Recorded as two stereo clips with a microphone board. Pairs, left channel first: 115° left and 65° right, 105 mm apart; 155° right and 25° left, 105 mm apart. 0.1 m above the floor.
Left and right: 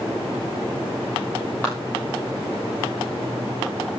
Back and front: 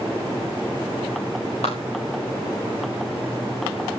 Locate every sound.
1.6 s a clap: 170° right, 6.5 m